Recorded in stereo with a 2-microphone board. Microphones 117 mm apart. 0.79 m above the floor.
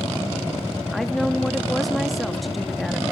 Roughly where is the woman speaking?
Centre.